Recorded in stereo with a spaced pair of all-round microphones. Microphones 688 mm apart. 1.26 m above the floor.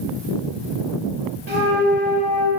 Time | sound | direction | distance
1.5 | a flute | 65° right (ahead or behind) | 3.5 m